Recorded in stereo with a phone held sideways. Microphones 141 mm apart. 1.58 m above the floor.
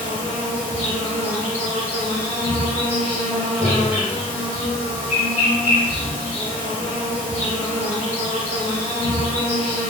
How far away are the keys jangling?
I don't hear keys jangling.